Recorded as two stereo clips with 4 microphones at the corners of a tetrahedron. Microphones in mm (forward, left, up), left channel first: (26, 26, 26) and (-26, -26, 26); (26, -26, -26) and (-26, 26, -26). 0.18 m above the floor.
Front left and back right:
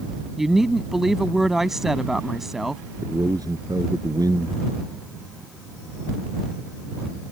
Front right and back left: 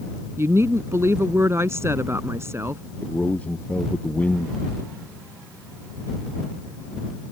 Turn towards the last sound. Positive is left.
turn(degrees=-115)